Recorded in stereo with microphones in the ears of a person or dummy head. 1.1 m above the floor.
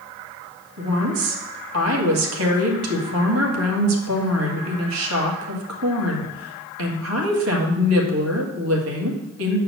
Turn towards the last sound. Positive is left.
turn(degrees=-80)